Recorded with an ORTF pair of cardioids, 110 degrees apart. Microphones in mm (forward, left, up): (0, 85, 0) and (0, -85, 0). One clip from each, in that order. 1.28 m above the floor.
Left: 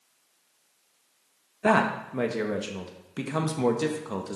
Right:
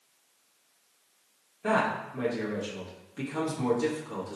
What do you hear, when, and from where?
1.6 s a man speaking: 55° left, 1.3 m